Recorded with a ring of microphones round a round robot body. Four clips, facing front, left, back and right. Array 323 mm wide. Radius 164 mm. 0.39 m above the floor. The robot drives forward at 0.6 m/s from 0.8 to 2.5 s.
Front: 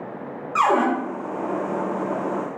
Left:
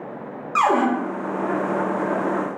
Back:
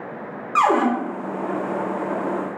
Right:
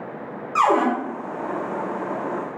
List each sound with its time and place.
0.6 s a cupboard door: 140° left, 0.7 m; by 0.9 s 145° left, 0.7 m